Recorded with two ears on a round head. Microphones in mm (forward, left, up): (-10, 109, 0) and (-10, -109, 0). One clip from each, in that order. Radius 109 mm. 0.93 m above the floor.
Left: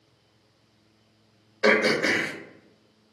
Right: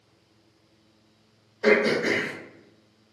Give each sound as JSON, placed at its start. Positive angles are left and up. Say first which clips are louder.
{"t": 1.6, "sound": "throat clearing", "louder": "even", "side_deg": 35, "distance_m": 0.6}